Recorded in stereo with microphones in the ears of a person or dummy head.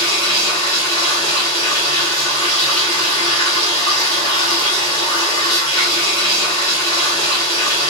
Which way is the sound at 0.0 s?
25° left (ahead or behind).